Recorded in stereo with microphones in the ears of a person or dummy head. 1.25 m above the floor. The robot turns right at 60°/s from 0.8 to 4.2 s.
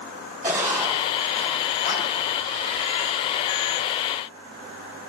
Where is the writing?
15° right (ahead or behind), 5.5 m; by 2.1 s 60° left (ahead or behind), 5.5 m.